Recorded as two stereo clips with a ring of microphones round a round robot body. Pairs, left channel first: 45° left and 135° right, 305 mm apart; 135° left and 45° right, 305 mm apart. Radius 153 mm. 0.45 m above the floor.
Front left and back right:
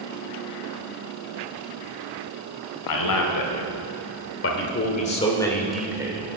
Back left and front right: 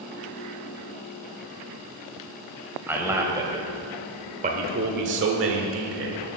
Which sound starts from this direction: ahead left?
A man speaking, at 2.9 s.